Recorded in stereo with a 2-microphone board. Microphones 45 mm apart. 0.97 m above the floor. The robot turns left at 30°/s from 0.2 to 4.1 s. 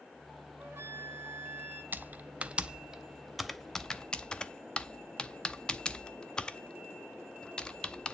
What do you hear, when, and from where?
0.6 s a flute: 80° right, 1.4 m; by 1.8 s 115° right, 1.4 m
1.9 s typing on a keyboard: 45° right (ahead or behind), 0.5 m; by 8.1 s 15° left (ahead or behind), 0.5 m